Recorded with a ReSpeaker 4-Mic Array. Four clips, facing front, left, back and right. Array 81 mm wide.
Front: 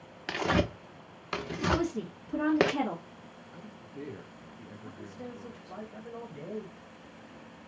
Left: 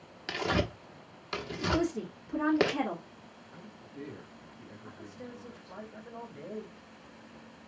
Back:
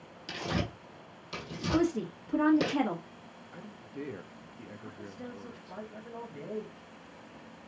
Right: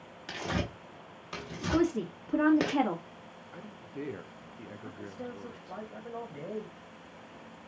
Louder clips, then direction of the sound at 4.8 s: Right 4 dB, front 1 dB; 85° right.